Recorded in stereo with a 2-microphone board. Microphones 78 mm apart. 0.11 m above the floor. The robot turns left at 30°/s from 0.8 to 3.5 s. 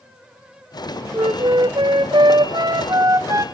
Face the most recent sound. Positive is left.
turn(degrees=-145)